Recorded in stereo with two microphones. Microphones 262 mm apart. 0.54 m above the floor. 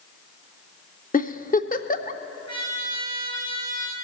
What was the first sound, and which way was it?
A giggle, 35° left (ahead or behind).